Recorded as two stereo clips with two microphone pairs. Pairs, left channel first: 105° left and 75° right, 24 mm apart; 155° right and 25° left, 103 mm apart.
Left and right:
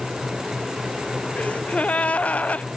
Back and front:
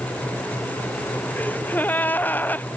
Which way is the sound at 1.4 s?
135° left.